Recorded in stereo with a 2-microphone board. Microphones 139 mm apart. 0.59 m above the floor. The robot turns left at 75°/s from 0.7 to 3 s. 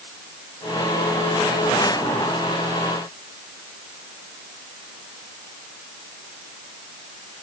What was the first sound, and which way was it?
Only background noise.